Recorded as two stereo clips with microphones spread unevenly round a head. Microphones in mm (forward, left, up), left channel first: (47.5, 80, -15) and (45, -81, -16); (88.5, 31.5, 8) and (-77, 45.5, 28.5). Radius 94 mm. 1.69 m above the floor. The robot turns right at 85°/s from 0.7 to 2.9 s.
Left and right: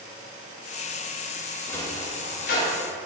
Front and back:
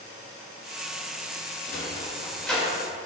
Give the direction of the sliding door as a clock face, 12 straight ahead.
12 o'clock.